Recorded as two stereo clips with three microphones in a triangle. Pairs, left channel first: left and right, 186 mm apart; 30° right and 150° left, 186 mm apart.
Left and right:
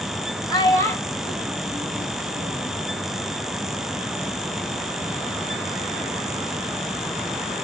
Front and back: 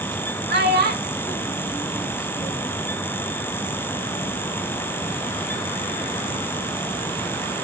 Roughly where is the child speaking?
Behind left.